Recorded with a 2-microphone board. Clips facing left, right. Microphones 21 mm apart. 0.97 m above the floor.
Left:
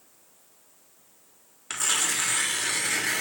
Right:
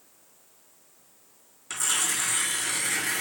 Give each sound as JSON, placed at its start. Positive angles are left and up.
{"t": 1.7, "sound": "tearing paper", "side_deg": 25, "distance_m": 0.8}